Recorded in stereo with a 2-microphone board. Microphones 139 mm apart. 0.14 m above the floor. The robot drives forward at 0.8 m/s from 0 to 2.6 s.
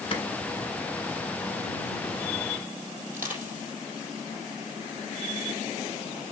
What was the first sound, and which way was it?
A clap, 40° left (ahead or behind).